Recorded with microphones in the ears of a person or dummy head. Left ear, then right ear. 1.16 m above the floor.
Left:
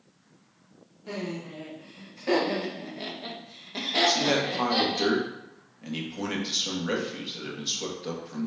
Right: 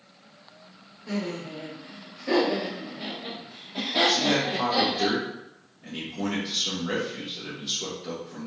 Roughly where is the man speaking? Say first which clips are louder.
Right 1 dB; left.